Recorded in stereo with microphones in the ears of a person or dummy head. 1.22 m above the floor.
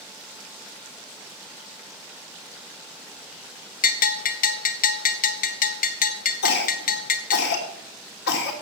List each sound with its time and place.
3.8 s a bell: 35° left (ahead or behind), 0.6 m
6.4 s a cough: 70° left (ahead or behind), 2.5 m